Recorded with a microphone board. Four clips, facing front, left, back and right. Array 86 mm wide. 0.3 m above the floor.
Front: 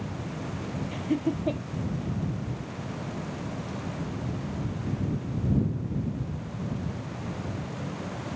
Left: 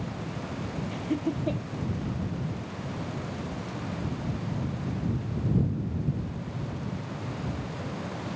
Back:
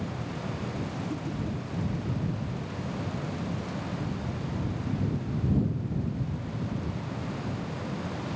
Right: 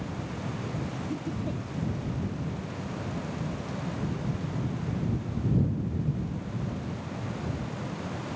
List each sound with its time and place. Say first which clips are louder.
0.9 s laughter: left 4 dB, front 6 dB; 30° left